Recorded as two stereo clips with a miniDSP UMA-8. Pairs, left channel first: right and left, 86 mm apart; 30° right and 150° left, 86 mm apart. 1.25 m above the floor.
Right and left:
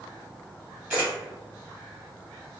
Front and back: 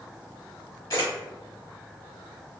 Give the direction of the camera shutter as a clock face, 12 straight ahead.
11 o'clock.